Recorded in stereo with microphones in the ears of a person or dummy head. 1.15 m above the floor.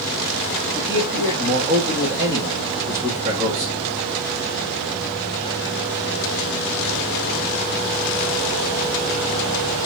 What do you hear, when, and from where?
0.8 s a man speaking: 25° right (ahead or behind), 1.8 m